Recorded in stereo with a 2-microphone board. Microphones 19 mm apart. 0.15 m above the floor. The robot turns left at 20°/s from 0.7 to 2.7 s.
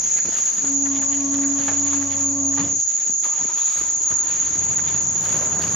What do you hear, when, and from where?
0.0 s an insect: 165° right, 1.5 m; by 5.8 s 155° left, 1.5 m